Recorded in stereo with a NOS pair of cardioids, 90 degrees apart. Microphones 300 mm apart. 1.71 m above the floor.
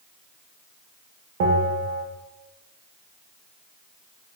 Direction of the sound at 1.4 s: 55° right.